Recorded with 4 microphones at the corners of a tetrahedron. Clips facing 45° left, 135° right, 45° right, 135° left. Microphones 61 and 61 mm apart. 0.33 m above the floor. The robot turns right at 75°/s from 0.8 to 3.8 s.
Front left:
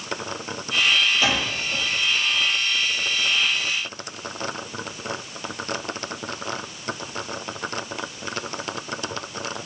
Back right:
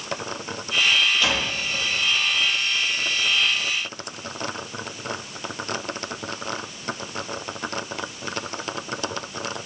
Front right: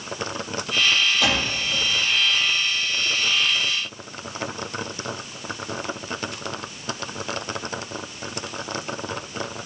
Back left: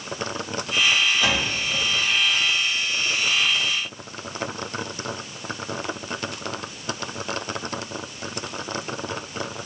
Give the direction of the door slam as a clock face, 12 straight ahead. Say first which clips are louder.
Front left 1 dB, even; 1 o'clock.